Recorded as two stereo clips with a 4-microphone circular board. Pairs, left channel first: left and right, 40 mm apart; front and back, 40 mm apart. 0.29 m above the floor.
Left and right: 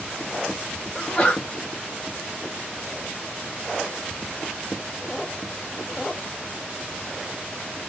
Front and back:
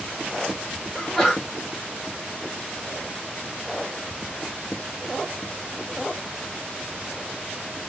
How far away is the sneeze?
About 1.6 m.